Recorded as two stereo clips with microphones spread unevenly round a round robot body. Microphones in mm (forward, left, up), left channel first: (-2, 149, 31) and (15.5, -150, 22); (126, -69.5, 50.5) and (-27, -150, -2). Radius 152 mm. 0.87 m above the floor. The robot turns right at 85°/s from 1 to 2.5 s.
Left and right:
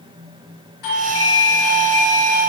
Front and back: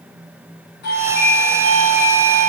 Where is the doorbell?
75° left, 3 m; by 2.5 s 155° right, 3 m.